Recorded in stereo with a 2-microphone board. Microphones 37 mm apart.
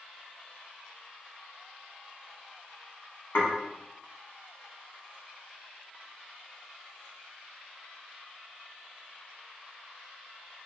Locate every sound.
3.4 s dishes clattering: 65° left (ahead or behind), 1.2 m